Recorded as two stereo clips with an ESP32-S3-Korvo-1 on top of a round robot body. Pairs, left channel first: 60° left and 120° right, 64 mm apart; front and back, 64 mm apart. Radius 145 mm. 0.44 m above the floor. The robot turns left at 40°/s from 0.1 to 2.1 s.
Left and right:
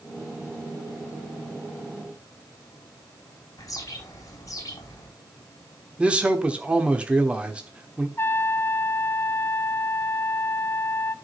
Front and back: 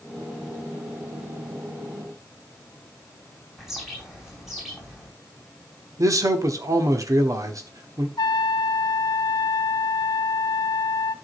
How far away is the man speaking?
About 1.4 m.